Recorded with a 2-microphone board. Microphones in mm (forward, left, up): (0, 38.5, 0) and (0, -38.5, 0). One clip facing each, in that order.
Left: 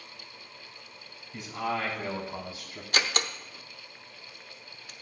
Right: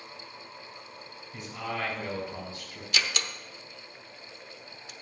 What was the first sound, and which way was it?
A man speaking, centre (ahead or behind).